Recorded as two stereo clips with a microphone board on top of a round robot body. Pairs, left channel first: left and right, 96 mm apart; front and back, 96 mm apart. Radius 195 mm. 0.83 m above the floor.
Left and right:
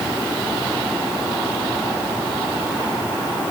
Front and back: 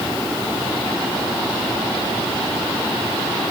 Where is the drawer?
I don't hear a drawer.